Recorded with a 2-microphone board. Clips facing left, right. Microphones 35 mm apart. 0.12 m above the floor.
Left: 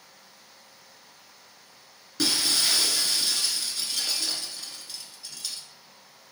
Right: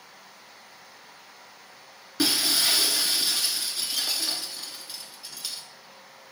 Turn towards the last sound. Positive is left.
turn(degrees=-15)  # may be behind; listen again after turning